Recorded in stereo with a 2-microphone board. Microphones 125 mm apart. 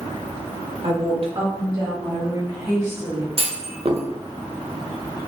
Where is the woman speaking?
50° right (ahead or behind), 1.2 m; by 3.3 s 30° right (ahead or behind), 2.5 m.